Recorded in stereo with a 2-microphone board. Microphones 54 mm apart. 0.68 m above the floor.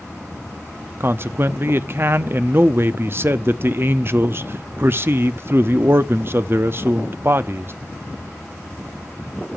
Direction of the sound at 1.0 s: 45° right (ahead or behind).